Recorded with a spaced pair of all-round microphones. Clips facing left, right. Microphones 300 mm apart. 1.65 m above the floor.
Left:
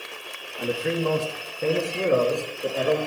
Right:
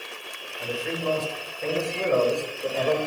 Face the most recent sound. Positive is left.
turn(degrees=15)  # may be behind; listen again after turning